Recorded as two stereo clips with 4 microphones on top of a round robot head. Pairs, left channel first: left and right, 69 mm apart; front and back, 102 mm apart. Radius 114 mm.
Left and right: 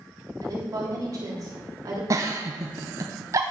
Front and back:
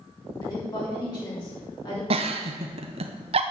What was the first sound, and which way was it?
A woman speaking, 50° right.